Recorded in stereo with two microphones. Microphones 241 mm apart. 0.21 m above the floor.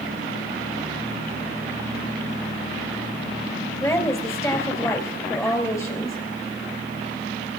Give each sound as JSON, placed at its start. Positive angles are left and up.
{"t": 3.8, "sound": "a woman speaking", "side_deg": 10, "distance_m": 3.5}